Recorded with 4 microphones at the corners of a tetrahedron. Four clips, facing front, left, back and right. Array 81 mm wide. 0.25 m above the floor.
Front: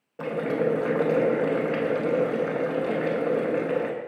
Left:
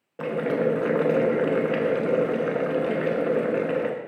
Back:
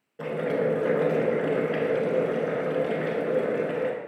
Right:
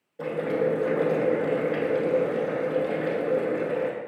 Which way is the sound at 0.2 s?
60° left.